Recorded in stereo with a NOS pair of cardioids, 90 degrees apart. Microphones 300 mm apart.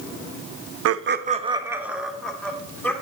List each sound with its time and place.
0.8 s laughter: 55° right, 0.8 m; by 2.9 s 5° left, 3 m